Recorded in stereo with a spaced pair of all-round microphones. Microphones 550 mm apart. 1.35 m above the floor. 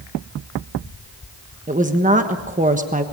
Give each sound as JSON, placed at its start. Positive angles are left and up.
{"t": 1.7, "sound": "a woman speaking", "side_deg": -15, "distance_m": 1.2}